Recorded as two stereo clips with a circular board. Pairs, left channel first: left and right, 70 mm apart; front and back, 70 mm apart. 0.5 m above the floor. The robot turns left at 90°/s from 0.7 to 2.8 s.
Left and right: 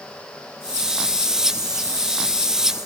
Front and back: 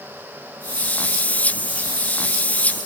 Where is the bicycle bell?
I don't hear a bicycle bell.